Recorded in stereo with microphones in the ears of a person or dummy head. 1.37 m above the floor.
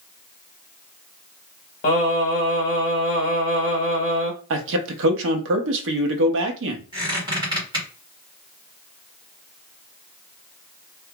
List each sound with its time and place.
1.8 s singing: 40° left (ahead or behind), 1.0 m
4.5 s a man speaking: 65° right (ahead or behind), 0.7 m
6.9 s a squeak: 20° right (ahead or behind), 1.5 m